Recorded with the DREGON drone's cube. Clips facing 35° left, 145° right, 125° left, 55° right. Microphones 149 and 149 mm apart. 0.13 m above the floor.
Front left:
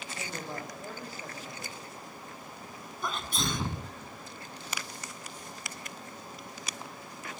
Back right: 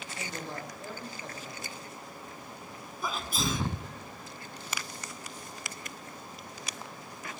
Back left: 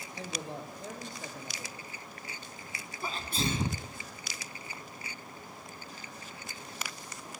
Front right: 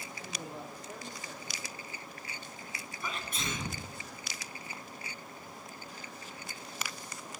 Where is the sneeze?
130° left, 1.6 m.